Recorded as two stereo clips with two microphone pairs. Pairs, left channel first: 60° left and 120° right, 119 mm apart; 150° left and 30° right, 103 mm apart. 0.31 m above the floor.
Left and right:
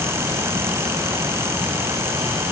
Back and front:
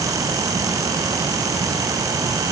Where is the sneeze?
No sneeze in this recording.